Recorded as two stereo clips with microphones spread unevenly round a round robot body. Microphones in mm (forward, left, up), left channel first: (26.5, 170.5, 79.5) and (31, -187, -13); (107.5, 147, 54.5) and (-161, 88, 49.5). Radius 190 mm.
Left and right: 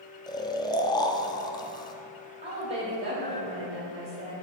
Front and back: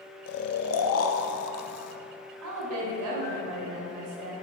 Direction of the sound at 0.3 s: 5° left.